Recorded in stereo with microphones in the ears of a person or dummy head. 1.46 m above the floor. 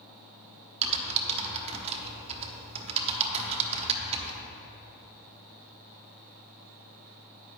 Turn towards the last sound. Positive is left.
turn(degrees=-35)  # may be behind; listen again after turning